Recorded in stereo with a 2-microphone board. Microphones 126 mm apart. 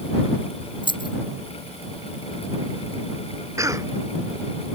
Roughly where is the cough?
Right.